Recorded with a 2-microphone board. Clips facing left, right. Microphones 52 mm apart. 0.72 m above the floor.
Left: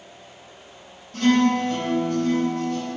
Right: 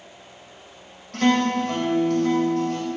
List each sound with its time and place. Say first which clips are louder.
1.1 s a guitar: left 1 dB; 70° right (ahead or behind), 4 m